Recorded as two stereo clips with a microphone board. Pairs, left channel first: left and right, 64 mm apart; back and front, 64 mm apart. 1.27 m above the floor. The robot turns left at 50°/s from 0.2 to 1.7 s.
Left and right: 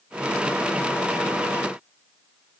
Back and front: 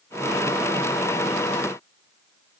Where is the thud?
No thud in this recording.